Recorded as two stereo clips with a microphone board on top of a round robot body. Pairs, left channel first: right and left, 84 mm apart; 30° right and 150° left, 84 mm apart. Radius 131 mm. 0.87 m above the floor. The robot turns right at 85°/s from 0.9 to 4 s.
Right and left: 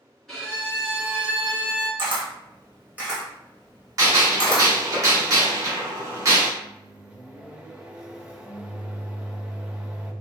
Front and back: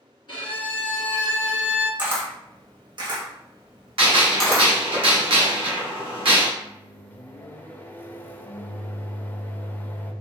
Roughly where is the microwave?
Ahead.